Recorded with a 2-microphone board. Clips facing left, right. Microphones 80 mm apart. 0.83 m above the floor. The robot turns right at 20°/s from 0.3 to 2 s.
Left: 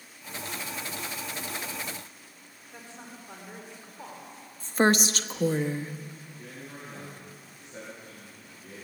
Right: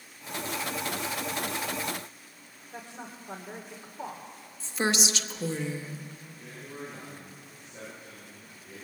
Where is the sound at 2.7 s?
20° right (ahead or behind), 2 m.